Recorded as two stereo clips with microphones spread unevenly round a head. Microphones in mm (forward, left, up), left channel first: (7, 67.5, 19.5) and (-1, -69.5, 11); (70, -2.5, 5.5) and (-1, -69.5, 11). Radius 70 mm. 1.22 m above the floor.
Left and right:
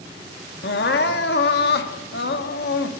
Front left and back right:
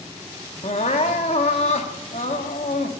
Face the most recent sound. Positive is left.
turn(degrees=90)